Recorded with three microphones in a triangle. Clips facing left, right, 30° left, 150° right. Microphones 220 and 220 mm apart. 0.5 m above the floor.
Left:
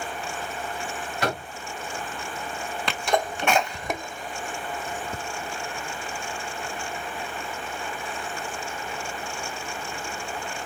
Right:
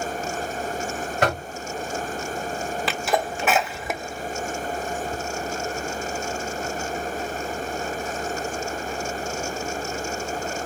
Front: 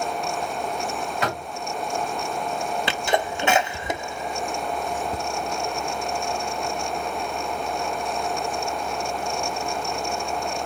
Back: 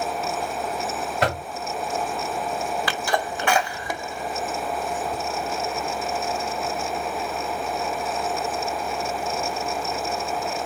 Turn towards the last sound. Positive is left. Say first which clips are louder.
# left 1 dB, front 2 dB
turn(degrees=-10)